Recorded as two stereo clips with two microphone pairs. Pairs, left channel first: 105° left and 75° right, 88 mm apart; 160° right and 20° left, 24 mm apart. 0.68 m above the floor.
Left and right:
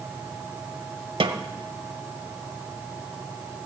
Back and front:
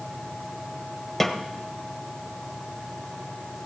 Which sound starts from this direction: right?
A snare drum, at 1.2 s.